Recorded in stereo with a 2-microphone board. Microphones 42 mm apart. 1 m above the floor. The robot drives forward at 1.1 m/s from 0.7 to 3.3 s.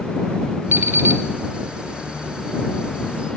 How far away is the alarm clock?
About 1.9 m.